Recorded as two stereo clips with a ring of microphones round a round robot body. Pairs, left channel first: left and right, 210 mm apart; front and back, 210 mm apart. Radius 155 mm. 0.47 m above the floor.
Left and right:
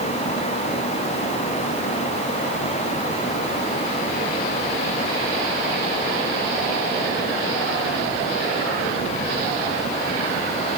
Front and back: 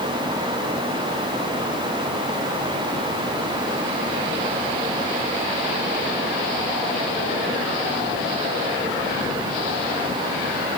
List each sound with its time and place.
Only background noise.